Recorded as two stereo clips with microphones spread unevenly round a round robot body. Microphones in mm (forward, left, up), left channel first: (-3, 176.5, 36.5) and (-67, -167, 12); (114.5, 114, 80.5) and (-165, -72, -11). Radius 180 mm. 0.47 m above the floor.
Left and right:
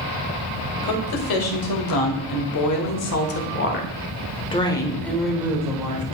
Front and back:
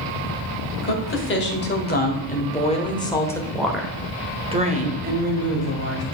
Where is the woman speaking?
90° left, 2.5 m; by 6.1 s 170° right, 1.8 m.